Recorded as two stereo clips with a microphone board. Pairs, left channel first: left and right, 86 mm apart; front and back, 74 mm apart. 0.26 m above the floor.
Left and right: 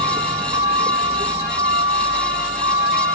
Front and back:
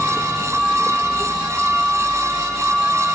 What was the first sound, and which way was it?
A vehicle, 100° right.